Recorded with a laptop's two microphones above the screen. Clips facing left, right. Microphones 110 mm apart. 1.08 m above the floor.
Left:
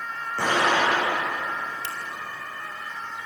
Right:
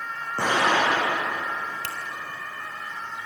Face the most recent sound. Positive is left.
turn(degrees=-75)  # may be behind; listen again after turning